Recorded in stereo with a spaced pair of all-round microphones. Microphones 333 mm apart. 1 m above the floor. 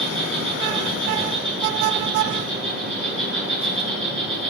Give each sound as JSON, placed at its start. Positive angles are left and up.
{"t": 0.0, "sound": "an insect", "side_deg": -35, "distance_m": 5.5}